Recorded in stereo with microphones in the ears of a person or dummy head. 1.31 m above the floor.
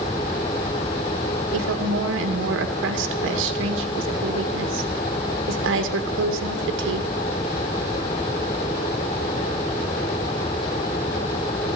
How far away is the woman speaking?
About 1.8 m.